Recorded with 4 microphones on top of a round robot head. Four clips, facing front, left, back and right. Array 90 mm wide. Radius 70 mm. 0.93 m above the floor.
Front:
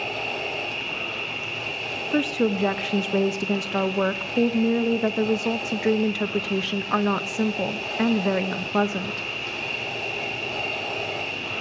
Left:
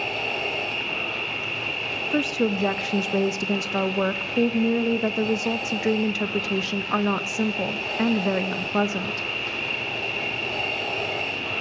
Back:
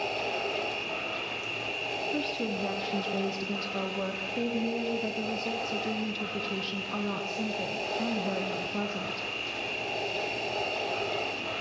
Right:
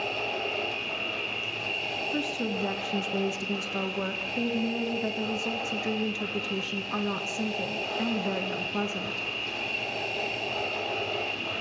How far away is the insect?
About 0.9 m.